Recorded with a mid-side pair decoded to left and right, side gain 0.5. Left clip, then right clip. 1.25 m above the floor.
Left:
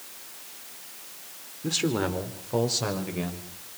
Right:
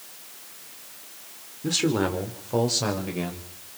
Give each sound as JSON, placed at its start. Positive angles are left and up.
{"t": 1.6, "sound": "a man speaking", "azimuth_deg": -15, "distance_m": 4.0}